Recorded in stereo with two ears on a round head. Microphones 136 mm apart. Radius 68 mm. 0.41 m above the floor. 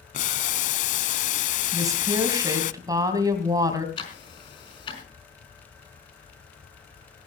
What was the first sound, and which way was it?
Boiling, 50° left (ahead or behind).